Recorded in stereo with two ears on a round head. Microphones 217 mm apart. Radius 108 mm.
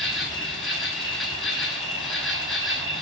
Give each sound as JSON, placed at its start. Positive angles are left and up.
{"t": 0.0, "sound": "an insect", "side_deg": 0, "distance_m": 0.8}